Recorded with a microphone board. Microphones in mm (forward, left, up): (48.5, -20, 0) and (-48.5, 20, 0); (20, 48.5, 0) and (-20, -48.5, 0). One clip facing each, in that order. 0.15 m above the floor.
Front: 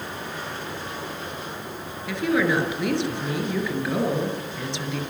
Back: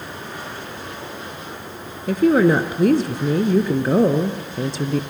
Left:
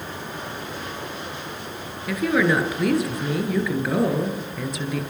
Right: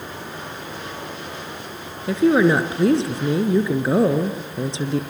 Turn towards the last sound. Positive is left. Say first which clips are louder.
# back 8 dB, right 5 dB
turn(degrees=-165)